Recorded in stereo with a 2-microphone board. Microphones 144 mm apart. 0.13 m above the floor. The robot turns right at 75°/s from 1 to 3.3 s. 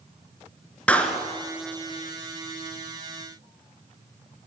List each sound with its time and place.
0.9 s a clap: 10° left (ahead or behind), 1.9 m; by 1.2 s centre (ahead or behind), 1.9 m